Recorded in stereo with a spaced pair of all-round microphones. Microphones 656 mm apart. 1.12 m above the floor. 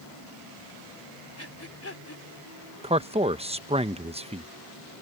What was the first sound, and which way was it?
Breathing, 20° left (ahead or behind).